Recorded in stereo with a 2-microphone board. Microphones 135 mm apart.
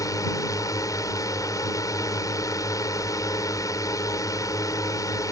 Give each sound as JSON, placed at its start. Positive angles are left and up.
{"t": 0.0, "sound": "a drone", "side_deg": 30}